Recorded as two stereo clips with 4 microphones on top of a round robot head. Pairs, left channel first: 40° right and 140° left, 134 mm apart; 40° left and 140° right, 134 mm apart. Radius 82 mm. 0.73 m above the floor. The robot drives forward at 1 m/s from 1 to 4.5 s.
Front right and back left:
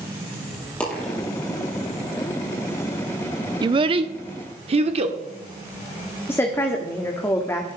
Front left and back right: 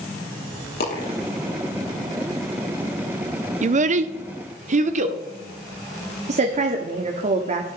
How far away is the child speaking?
About 0.7 m.